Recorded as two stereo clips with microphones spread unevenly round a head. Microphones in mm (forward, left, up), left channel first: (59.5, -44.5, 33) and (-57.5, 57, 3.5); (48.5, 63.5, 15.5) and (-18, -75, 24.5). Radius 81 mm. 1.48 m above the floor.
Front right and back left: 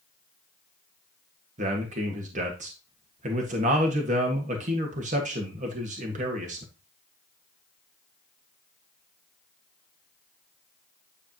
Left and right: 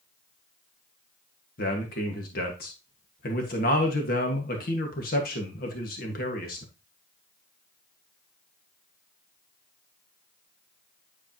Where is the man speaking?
95° left, 1.7 m.